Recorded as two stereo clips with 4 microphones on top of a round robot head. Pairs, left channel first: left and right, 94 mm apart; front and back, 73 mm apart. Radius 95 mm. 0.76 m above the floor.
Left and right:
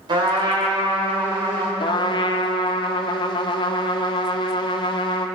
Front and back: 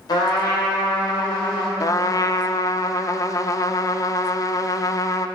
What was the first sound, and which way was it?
A trumpet, 45° right.